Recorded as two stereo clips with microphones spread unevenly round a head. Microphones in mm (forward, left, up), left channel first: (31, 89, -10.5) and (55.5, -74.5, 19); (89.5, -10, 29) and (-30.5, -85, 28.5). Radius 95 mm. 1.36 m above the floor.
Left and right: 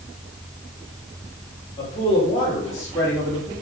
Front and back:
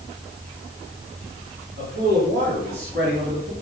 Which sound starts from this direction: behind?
A man speaking, at 1.8 s.